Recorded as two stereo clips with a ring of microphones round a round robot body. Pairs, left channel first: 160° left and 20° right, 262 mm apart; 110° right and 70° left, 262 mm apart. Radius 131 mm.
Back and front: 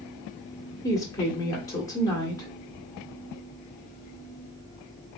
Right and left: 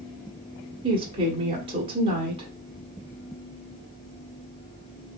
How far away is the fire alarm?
I don't hear a fire alarm.